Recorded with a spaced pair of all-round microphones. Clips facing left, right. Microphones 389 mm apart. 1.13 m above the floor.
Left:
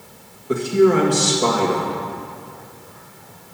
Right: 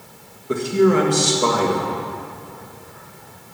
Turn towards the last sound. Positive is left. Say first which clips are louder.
# left 1 dB
turn(degrees=0)  # may be behind; listen again after turning